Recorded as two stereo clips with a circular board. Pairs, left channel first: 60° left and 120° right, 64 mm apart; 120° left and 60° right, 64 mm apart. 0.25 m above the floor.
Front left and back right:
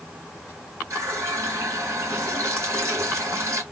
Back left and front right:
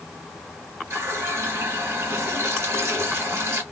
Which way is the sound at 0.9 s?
90° right.